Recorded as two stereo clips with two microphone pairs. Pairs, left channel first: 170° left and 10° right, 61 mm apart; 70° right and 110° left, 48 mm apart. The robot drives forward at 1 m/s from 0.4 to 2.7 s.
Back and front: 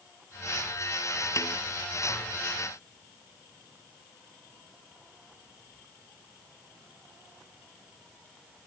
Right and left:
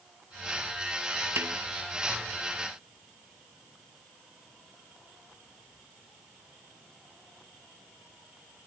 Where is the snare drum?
140° left.